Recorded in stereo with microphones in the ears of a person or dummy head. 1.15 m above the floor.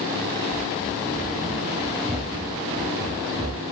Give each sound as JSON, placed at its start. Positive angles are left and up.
{"t": 0.5, "sound": "running footsteps", "side_deg": 10, "distance_m": 1.1}